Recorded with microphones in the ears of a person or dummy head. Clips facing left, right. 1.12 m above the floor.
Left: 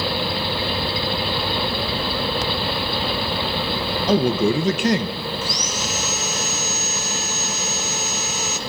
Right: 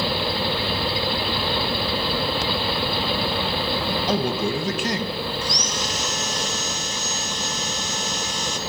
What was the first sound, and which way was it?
A man speaking, 60° left (ahead or behind).